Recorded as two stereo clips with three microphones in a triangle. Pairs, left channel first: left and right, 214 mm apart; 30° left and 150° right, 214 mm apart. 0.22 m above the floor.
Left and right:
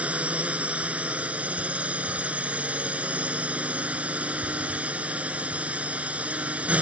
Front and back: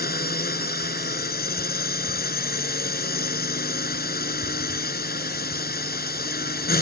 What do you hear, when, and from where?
0.0 s a drone: 5° right